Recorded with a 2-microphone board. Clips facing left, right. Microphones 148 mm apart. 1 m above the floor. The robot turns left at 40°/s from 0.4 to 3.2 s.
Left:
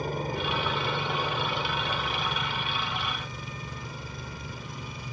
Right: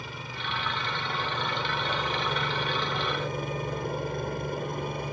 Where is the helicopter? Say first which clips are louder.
Left 9 dB; 50° left; by 5.1 s 65° right.